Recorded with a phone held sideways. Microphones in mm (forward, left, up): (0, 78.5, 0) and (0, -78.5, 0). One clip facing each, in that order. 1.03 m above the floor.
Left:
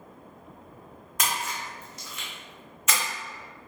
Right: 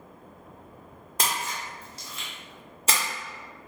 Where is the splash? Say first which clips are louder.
Even; 35° right (ahead or behind), 0.6 m.